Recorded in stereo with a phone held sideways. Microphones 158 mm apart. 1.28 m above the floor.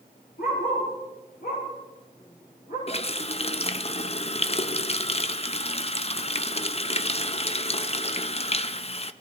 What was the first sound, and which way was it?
A dog barking, 75° left (ahead or behind).